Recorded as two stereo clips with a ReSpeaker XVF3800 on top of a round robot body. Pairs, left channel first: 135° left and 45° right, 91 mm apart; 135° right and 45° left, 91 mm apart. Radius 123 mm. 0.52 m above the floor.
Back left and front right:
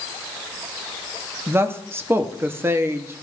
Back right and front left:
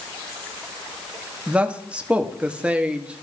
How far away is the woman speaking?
About 1.0 m.